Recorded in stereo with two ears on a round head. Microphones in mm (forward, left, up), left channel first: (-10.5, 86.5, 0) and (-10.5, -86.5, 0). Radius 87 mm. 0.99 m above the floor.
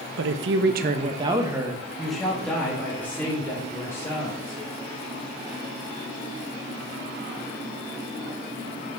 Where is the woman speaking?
65° right (ahead or behind), 0.7 m; by 4.6 s 15° left (ahead or behind), 3 m.